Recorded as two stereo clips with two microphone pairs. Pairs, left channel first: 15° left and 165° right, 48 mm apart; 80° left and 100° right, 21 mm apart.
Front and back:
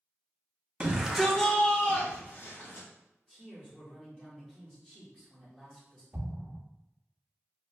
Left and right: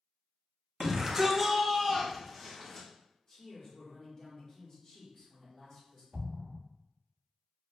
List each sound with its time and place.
0.8 s a shout: 125° right, 0.7 m; by 2.9 s straight ahead, 1.2 m
3.3 s a man speaking: 65° left, 1.2 m
6.1 s an explosion: 155° right, 1.2 m